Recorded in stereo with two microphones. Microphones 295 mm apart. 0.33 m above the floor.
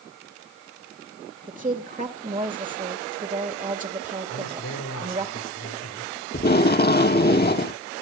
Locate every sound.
1.5 s a woman speaking: 25° right (ahead or behind), 1.5 m
4.3 s a man speaking: 60° left (ahead or behind), 8.5 m
6.3 s tape being pulled: 35° left (ahead or behind), 0.5 m